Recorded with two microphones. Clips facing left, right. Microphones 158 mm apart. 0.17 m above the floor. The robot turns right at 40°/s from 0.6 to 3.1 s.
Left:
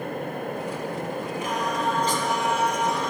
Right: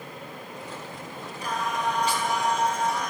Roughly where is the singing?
Ahead right.